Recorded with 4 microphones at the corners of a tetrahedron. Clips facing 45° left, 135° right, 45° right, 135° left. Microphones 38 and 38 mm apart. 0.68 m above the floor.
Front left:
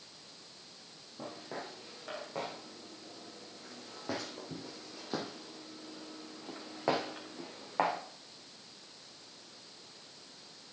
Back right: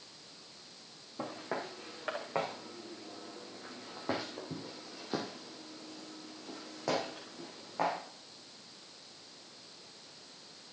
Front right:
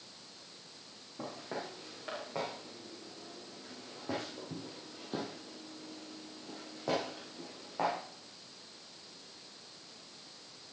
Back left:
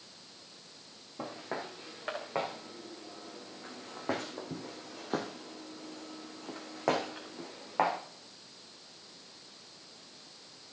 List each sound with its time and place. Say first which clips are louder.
1.2 s footsteps: back right 4 dB, back left 2 dB; 165° right, 3.5 m; by 8.0 s 95° left, 3 m